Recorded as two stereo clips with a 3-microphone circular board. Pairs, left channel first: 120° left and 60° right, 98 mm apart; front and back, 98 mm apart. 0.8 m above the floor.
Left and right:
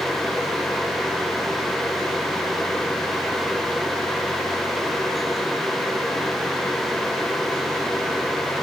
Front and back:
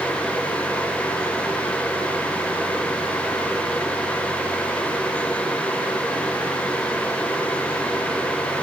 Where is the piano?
No piano in this recording.